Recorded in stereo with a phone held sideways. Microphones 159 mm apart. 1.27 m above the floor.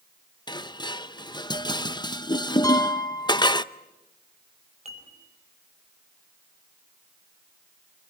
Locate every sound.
0.5 s dishes clattering: 25° left (ahead or behind), 0.7 m
2.6 s a piano: 20° left (ahead or behind), 2 m
4.8 s dishes clattering: 40° right (ahead or behind), 5 m